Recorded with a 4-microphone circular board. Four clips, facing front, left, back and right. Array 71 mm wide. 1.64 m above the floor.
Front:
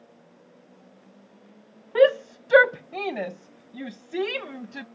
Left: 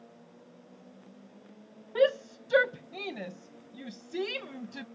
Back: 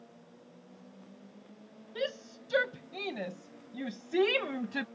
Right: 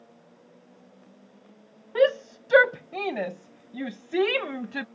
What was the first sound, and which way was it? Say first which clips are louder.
A shout: right 4 dB, front 18 dB; 20° right.